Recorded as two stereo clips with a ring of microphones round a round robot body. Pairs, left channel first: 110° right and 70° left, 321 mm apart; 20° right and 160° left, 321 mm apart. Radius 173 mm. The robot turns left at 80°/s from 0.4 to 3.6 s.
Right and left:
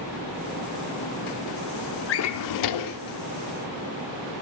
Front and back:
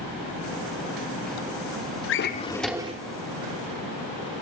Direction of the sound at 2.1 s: 65° right.